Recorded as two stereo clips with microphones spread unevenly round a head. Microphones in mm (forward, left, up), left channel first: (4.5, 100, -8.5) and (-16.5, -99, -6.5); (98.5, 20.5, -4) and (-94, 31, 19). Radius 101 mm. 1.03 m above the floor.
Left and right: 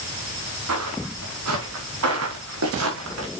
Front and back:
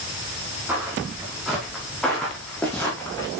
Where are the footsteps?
100° right, 5 m; by 3.3 s 85° right, 5 m.